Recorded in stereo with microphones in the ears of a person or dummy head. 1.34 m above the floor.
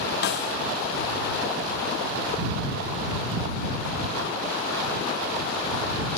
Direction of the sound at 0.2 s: 50° left (ahead or behind).